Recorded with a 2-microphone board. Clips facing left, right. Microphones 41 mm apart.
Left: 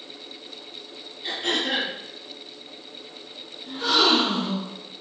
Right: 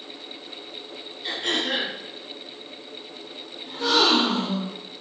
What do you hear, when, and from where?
1.2 s throat clearing: 5° left (ahead or behind), 1.4 m
3.7 s a gasp: 15° left (ahead or behind), 1.8 m